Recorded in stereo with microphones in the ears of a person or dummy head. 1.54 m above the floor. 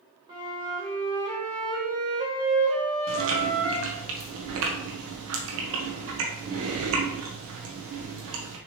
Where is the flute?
25° right (ahead or behind), 2 m.